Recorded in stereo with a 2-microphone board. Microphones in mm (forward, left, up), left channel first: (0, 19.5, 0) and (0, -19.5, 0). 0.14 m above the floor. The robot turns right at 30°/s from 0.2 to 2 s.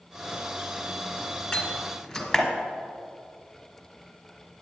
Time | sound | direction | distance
1.5 | a door slam | 15° left (ahead or behind) | 1.4 m